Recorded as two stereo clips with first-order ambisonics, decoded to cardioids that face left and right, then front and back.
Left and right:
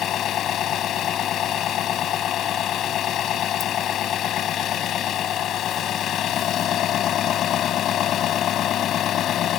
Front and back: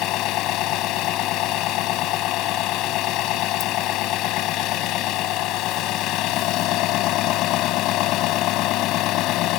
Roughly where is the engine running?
Ahead left.